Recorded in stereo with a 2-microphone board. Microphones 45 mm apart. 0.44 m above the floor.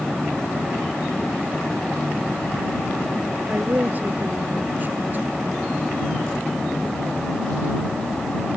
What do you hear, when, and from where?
3.5 s a woman speaking: 40° right (ahead or behind)